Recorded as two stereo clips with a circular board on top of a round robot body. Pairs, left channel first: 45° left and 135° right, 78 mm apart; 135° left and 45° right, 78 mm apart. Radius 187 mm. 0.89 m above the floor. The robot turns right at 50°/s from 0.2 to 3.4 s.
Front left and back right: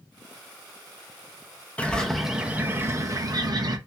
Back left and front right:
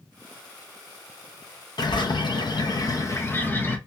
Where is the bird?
115° left, 0.8 m; by 3.8 s 165° right, 0.8 m.